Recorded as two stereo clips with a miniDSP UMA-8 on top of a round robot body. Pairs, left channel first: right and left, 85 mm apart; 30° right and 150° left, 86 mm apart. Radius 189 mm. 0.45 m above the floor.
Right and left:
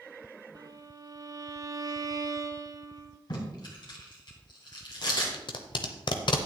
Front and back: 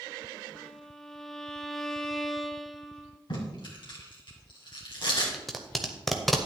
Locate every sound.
0.6 s a violin: 55° left, 0.9 m
3.3 s tape being pulled: 60° right, 3 m
5.3 s tape being pulled: 120° right, 0.7 m